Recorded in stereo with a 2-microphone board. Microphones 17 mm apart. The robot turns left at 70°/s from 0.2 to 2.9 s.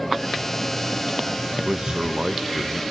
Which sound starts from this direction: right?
A man speaking, at 1.6 s.